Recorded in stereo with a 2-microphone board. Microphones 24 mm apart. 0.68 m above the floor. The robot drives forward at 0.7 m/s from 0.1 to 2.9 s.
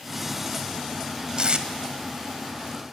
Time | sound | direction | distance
1.4 | tape being pulled | 45° right (ahead or behind) | 0.8 m